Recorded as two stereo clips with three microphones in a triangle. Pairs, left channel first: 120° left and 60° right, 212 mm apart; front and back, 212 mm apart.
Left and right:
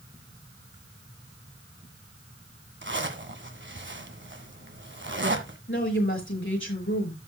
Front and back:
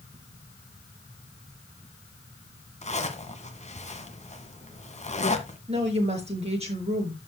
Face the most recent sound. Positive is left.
turn(degrees=120)